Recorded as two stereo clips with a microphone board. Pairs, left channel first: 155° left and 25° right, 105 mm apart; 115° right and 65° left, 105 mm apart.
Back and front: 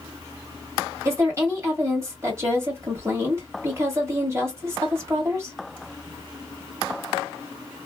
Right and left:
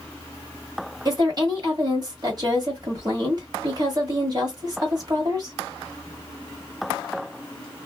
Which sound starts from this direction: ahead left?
A woman speaking, at 1.1 s.